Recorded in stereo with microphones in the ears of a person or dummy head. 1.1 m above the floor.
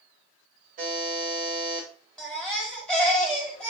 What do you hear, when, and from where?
0.8 s a buzzer: 45° right (ahead or behind), 1.6 m
2.2 s a baby crying: 5° left (ahead or behind), 1.4 m